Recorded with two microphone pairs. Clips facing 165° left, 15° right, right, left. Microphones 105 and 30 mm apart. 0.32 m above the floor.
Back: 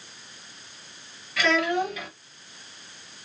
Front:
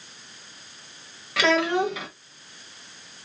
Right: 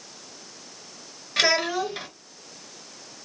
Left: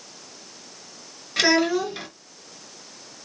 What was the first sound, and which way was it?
A child speaking, 10° right.